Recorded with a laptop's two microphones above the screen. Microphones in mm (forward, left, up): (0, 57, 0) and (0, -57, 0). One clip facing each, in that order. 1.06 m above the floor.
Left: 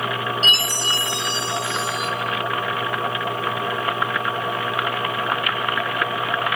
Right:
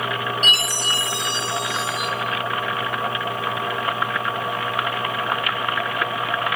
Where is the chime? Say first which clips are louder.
Even; 30° left (ahead or behind), 6 m.